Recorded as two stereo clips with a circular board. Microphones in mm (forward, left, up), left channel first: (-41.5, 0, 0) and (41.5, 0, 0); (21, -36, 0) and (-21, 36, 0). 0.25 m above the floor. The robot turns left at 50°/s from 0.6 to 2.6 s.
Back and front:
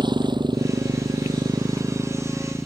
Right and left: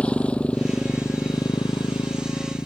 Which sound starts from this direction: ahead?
A motorcycle, at 0.0 s.